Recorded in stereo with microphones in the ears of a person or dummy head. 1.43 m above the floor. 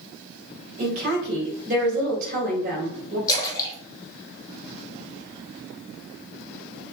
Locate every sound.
0.8 s a woman speaking: 50° right (ahead or behind), 2.5 m
3.3 s a splash: 20° left (ahead or behind), 1.3 m